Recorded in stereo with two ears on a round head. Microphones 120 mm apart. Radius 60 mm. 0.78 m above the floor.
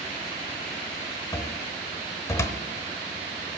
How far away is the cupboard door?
About 0.9 m.